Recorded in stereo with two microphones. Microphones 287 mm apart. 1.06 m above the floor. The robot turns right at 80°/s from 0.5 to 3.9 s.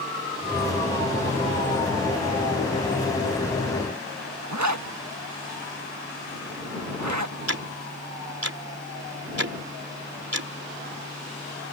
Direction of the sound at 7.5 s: 60° right (ahead or behind).